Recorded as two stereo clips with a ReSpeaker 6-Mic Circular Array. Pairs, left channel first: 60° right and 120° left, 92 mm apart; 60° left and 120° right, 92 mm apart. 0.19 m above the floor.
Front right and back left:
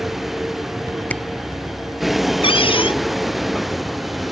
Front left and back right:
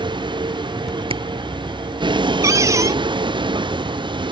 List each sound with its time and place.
0.0 s a vehicle: 150° right
1.1 s a camera shutter: 135° right
2.4 s a cupboard door: 65° right